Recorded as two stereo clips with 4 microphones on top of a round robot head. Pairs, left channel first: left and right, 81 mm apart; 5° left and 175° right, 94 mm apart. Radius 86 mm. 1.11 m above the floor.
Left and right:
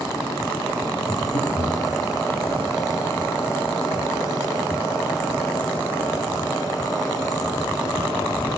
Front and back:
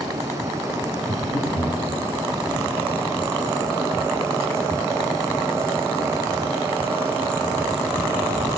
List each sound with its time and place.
1.1 s breathing: 50° left, 1.6 m